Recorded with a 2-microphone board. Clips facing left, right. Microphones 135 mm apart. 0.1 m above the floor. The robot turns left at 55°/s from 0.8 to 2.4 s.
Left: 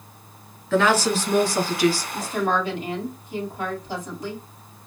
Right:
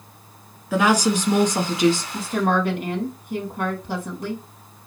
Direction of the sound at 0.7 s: 10° right (ahead or behind).